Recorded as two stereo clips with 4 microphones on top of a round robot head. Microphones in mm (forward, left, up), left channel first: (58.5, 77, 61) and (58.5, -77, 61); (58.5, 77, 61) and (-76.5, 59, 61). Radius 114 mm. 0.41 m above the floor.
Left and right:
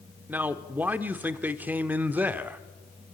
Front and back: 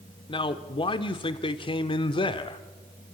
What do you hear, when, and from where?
0.3 s a man speaking: 15° right, 1.0 m